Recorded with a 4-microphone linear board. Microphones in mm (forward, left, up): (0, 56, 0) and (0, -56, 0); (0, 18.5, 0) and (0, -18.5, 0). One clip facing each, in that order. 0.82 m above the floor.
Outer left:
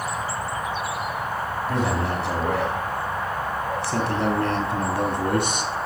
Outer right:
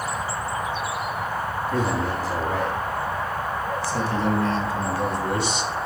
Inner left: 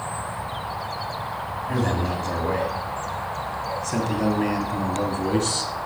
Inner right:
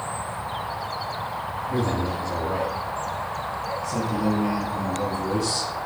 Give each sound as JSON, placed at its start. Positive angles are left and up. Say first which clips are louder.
{"t": 1.7, "sound": "a man speaking", "louder": "even, inner left 1 dB", "side_deg": 80, "distance_m": 4.5}